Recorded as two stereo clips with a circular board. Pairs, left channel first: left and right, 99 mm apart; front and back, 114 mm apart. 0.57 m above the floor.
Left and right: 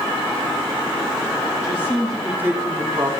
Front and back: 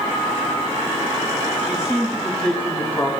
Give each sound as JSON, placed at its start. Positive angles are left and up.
{"t": 1.6, "sound": "a man speaking", "azimuth_deg": 115, "distance_m": 1.2}